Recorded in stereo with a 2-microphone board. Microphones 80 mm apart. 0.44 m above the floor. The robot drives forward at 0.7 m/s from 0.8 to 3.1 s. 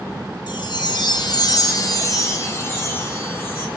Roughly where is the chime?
Left.